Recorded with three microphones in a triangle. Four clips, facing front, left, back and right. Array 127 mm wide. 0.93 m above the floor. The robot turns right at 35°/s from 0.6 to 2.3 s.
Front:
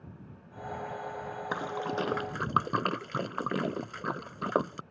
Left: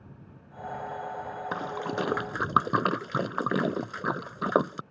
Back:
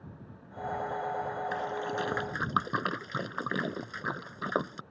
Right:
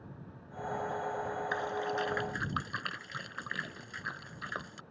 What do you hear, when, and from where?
1.5 s a splash: 50° left; by 4.8 s 80° left